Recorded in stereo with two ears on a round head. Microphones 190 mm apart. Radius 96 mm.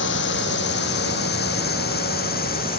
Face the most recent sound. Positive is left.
turn(degrees=45)  # may be behind; listen again after turning